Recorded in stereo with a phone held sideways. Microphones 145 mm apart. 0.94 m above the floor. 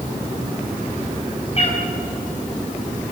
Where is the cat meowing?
45° left (ahead or behind), 4.5 m.